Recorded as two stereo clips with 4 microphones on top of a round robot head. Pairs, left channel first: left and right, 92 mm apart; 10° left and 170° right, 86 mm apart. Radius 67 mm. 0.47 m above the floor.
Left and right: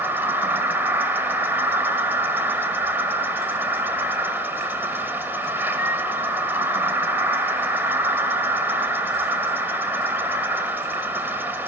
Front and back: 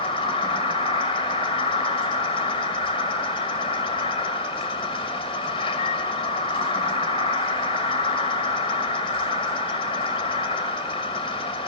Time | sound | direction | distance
0.0 | an insect | 20° right | 1.1 m